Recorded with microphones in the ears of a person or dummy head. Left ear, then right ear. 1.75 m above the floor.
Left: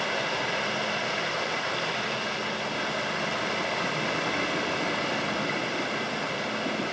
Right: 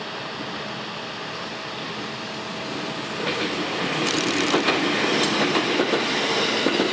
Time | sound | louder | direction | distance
0.0 | running water | left 3 dB | 35° left (ahead or behind) | 2.5 m